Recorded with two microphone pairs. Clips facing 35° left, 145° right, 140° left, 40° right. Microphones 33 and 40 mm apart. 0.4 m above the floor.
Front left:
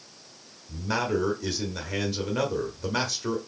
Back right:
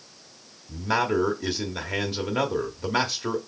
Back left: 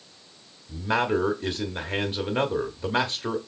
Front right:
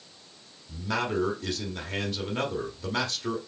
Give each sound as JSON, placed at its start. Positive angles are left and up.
{"t": 0.7, "sound": "a man speaking", "azimuth_deg": 170, "distance_m": 0.8}